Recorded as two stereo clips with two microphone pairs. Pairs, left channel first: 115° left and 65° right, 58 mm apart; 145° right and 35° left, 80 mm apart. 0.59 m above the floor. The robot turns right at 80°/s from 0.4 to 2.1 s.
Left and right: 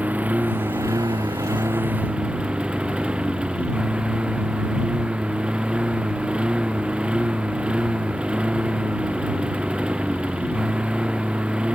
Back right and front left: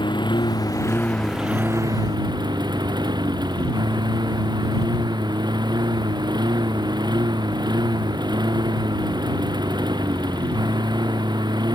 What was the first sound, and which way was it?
A lawn mower, 125° right.